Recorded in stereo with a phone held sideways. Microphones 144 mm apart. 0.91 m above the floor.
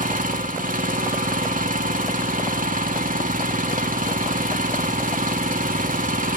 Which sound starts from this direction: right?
An engine running, at 0.0 s.